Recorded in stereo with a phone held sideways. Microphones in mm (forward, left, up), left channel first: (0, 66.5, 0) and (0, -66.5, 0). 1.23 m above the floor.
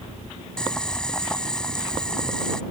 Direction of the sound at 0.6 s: 5° left (ahead or behind).